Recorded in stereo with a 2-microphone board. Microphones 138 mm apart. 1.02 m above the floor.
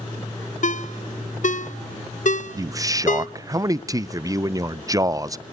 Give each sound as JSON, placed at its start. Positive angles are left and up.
{"t": 0.6, "sound": "a ringtone", "side_deg": 65, "distance_m": 0.6}
{"t": 2.6, "sound": "a man speaking", "side_deg": -25, "distance_m": 0.5}